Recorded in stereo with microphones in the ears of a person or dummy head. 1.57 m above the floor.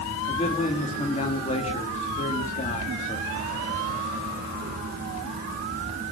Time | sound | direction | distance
0.3 | a man speaking | 30° left (ahead or behind) | 3.5 m